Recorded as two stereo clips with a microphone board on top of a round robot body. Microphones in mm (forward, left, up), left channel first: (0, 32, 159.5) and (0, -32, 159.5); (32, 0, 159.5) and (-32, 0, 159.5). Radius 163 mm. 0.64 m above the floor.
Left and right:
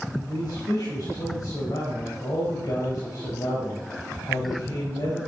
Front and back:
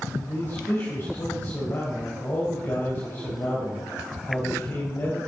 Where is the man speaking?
50° left, 4.5 m.